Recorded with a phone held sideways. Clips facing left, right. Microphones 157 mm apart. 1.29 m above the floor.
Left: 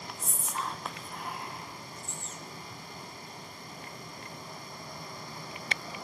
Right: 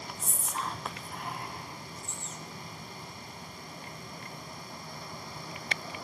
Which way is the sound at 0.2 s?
Centre (ahead or behind).